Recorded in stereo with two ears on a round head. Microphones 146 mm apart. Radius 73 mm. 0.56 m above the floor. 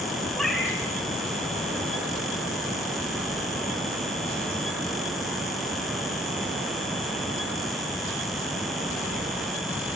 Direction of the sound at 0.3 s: Centre (ahead or behind).